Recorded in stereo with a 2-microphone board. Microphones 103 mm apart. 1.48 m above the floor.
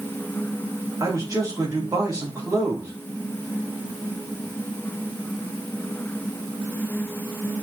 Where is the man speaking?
35° right (ahead or behind), 4 m.